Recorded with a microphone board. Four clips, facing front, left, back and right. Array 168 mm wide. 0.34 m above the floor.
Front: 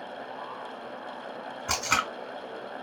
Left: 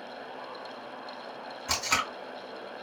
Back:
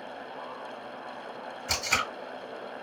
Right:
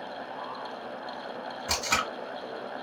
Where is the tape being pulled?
15° right, 2.5 m.